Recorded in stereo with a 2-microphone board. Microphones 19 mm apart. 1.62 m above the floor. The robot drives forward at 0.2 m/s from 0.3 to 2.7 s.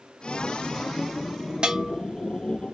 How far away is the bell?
About 0.7 m.